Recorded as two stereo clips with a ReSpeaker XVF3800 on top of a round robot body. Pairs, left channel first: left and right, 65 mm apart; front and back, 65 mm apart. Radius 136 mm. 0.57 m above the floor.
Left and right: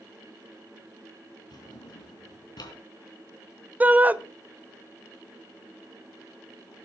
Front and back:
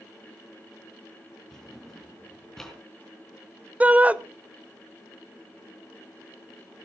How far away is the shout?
About 1.2 m.